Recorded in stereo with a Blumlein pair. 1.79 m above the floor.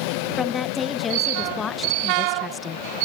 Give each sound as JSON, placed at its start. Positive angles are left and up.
{"t": 0.4, "sound": "a woman speaking", "azimuth_deg": 15}